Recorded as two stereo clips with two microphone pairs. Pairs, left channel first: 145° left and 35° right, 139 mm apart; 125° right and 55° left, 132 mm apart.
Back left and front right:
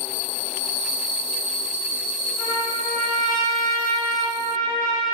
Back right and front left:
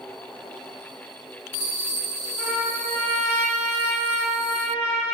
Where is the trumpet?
125° left, 1.9 m.